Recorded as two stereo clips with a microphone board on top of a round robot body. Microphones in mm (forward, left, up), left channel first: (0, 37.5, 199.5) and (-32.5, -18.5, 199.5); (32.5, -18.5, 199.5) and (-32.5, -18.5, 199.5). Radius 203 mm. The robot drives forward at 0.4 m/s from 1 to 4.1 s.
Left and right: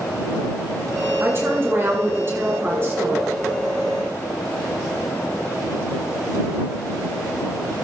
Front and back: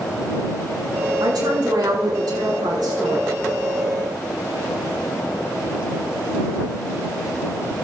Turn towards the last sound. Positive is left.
turn(degrees=-175)